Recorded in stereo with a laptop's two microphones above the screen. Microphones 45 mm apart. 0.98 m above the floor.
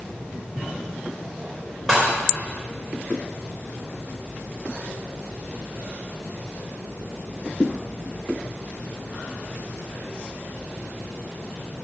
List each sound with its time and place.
1.9 s dishes clattering: 5° right (ahead or behind), 3 m